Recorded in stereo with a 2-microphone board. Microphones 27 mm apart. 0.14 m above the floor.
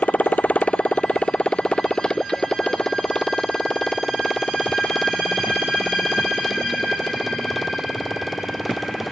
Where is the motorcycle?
65° left (ahead or behind); by 9.1 s centre (ahead or behind).